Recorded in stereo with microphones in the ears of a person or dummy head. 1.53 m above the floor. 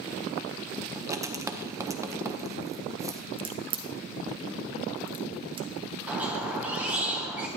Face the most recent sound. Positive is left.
turn(degrees=-5)  # may be behind; listen again after turning